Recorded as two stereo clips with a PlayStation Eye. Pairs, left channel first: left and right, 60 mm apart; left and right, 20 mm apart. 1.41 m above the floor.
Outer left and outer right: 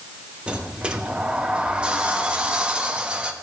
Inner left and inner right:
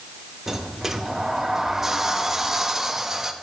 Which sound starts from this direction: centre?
A sliding door, at 0.5 s.